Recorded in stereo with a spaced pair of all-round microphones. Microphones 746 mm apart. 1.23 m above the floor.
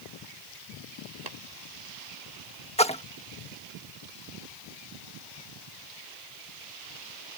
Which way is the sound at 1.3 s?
85° right.